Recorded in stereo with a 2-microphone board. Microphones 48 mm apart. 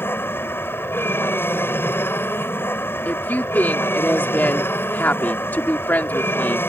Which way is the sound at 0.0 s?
50° left (ahead or behind).